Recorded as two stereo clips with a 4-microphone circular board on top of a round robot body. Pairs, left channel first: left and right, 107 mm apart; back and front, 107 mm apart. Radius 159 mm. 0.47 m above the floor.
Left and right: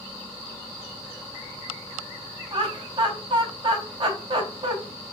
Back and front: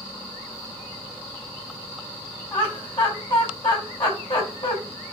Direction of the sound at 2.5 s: 140° right.